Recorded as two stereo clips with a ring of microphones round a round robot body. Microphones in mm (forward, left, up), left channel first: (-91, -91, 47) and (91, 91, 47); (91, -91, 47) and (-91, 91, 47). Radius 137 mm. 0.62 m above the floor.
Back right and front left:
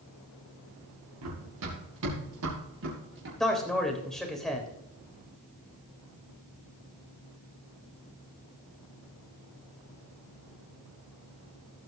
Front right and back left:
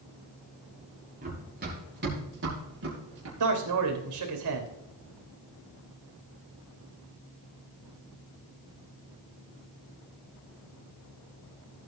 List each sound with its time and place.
1.2 s running footsteps: 75° left, 6.5 m; by 3.3 s 95° left, 7 m
3.4 s a man speaking: 135° left, 3.5 m